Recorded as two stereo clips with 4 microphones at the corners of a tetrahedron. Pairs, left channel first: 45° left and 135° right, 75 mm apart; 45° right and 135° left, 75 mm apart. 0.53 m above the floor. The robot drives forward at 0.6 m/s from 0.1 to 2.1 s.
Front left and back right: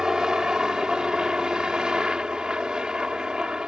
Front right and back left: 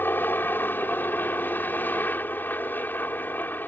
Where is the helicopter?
65° right; by 3.7 s 70° right.